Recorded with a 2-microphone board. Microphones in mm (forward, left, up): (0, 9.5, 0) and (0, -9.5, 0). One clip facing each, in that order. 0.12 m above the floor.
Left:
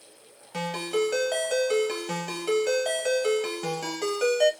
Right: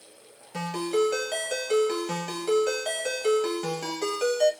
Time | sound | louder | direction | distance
0.5 | a ringtone | right 1 dB | 20° left (ahead or behind) | 1.2 m